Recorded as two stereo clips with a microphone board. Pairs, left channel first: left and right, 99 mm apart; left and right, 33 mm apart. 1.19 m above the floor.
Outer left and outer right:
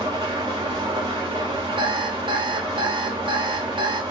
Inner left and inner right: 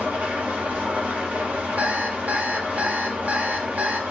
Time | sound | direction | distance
0.0 | an engine running | 65° right (ahead or behind) | 1.6 m
1.8 | an alarm clock | 55° right (ahead or behind) | 0.5 m